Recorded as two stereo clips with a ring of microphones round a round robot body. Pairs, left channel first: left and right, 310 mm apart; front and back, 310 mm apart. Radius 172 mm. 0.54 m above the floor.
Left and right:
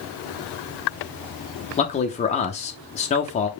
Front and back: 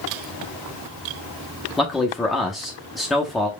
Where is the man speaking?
90° left, 0.6 m.